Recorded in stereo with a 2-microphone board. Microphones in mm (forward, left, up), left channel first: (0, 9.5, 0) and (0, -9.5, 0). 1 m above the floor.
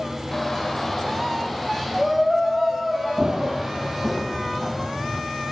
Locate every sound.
0.3 s a shout: 20° left (ahead or behind), 5 m; by 4.2 s 20° right (ahead or behind), 8.5 m
3.2 s running footsteps: 40° right (ahead or behind), 1.2 m; by 5.2 s centre (ahead or behind), 3 m